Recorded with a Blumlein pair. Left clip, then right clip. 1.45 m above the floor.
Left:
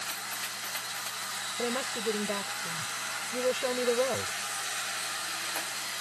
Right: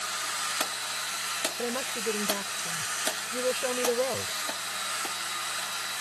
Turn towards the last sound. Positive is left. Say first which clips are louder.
# even
turn(degrees=0)